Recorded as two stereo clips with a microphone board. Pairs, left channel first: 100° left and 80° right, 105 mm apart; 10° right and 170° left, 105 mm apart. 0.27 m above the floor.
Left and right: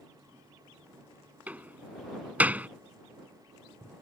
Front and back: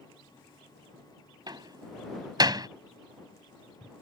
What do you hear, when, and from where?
1.5 s a door slam: 150° right